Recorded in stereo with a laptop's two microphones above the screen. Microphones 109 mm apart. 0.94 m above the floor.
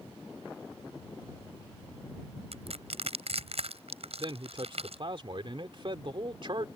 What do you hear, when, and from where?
2.5 s crushing: 70° right (ahead or behind)
4.2 s a man speaking: 50° right (ahead or behind)